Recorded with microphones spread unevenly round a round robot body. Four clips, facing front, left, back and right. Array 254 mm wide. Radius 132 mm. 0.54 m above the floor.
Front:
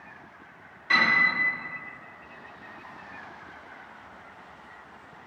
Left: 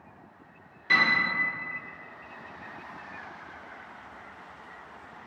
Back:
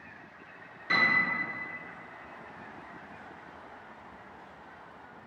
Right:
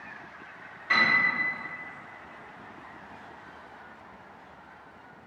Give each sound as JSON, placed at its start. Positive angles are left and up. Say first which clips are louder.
{"t": 0.9, "sound": "a piano", "louder": "even, front 4 dB", "azimuth_deg": 135, "distance_m": 0.8}